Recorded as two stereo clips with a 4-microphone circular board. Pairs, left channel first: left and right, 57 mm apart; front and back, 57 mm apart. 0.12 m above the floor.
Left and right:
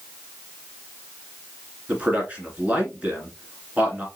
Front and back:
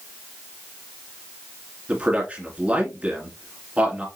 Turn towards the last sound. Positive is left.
turn(degrees=-135)